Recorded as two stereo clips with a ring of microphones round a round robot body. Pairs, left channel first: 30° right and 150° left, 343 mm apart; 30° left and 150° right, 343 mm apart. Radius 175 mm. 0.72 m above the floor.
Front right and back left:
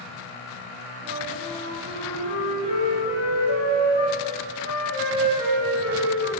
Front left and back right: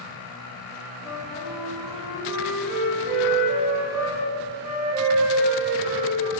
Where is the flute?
135° right, 1.0 m.